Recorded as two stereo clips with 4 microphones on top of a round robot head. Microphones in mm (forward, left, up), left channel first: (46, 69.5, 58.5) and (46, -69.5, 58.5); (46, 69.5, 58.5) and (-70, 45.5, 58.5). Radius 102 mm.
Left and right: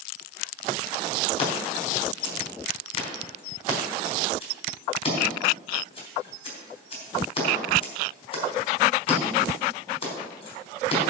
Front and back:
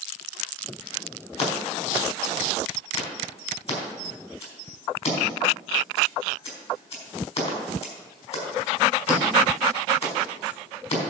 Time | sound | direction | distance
1.4 | scissors | 45° left | 4.5 m